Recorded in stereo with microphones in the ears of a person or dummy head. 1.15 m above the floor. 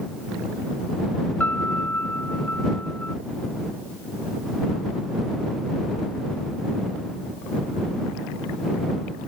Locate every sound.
1.4 s a piano: 5° left (ahead or behind)